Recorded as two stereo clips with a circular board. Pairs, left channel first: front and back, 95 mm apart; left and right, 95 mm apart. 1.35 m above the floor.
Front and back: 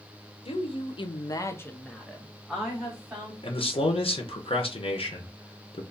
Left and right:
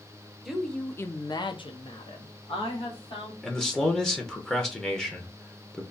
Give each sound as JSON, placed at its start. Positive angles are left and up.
{"t": 0.5, "sound": "a woman speaking", "azimuth_deg": -5, "distance_m": 0.7}
{"t": 3.4, "sound": "a man speaking", "azimuth_deg": 5, "distance_m": 0.6}